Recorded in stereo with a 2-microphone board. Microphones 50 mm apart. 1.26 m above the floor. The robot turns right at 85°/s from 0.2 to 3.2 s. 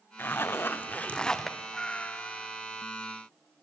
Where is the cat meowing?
10° left, 0.6 m; by 2.6 s 90° left, 0.6 m.